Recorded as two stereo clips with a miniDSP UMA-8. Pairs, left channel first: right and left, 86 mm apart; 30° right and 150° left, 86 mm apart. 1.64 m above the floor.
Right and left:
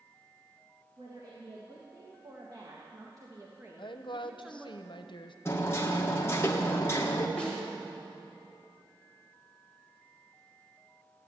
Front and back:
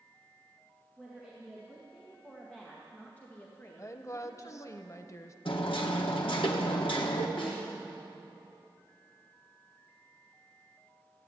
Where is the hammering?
30° right, 1.5 m.